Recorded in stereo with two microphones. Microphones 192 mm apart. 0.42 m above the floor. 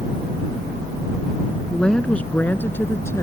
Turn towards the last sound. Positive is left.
turn(degrees=15)  # may be behind; listen again after turning